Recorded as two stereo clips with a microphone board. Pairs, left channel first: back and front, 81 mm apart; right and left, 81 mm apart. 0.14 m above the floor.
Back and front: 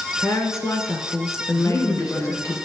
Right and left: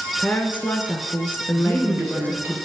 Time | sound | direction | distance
0.2 | a woman speaking | 150° right | 1.6 m
1.6 | a woman speaking | 145° left | 3 m